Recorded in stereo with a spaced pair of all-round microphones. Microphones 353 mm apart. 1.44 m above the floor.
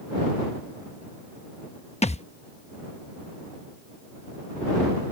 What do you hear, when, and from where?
2.0 s a thud: 20° left (ahead or behind)